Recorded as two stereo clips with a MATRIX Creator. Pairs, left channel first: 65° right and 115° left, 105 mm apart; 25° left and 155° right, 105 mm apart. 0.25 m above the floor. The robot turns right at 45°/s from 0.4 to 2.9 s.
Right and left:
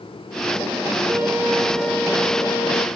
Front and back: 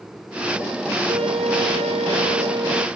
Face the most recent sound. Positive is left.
turn(degrees=-100)